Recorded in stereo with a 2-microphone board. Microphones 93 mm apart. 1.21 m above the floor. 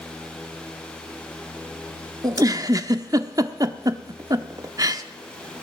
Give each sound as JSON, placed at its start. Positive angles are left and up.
{"t": 2.2, "sound": "a giggle", "side_deg": -40, "distance_m": 0.9}